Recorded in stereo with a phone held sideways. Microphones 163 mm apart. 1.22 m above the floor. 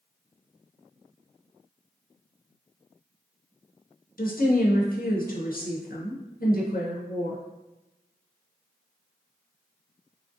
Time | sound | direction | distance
4.2 | a woman speaking | 60° left (ahead or behind) | 0.5 m